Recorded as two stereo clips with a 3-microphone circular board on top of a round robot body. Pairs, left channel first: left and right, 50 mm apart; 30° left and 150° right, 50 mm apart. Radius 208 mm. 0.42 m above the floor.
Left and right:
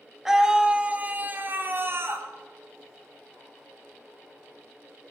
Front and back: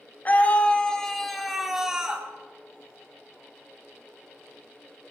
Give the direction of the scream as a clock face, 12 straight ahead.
12 o'clock.